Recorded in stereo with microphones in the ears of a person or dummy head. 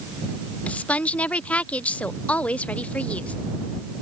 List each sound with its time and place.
0.7 s a woman speaking: 10° left (ahead or behind)